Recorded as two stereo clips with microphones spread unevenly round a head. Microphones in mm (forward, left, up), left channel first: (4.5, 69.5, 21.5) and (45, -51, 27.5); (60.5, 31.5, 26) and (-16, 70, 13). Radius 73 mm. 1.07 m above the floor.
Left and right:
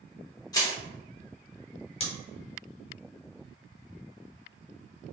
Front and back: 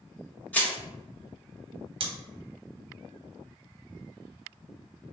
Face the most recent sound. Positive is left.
turn(degrees=160)